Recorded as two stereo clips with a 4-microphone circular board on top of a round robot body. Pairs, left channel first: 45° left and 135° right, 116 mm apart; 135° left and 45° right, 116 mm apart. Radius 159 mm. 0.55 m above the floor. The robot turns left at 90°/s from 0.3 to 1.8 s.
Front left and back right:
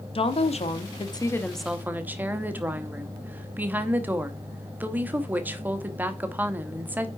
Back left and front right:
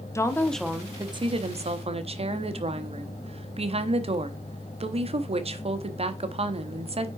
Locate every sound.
0.1 s a woman speaking: 75° left, 1.4 m; by 7.1 s 60° right, 1.4 m